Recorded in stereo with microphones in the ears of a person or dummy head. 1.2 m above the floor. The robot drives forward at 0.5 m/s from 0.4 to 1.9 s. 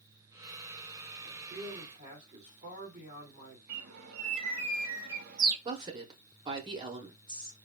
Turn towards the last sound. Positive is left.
turn(degrees=-25)  # may be behind; listen again after turning